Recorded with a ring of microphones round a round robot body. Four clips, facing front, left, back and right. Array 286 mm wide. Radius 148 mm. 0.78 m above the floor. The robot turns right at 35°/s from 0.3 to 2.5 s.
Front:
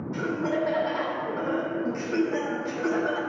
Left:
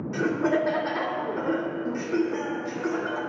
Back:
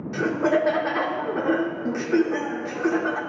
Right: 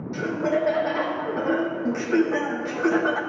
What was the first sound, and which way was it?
Laughter, 170° left.